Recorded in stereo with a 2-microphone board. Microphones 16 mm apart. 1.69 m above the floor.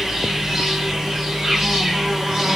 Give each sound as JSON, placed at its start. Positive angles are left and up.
{"t": 0.0, "sound": "an insect", "side_deg": -35, "distance_m": 2.0}